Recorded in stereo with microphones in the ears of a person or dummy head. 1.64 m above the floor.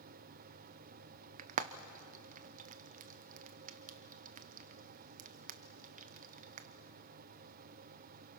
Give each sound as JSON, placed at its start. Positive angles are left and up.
{"t": 1.4, "sound": "frying", "side_deg": -45, "distance_m": 0.8}